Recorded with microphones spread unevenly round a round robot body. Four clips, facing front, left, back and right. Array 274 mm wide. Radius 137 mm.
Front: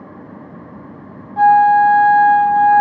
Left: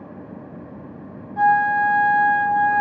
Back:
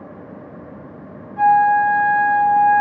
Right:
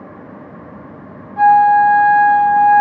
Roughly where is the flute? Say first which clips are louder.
Right 8 dB, front 4 dB; ahead.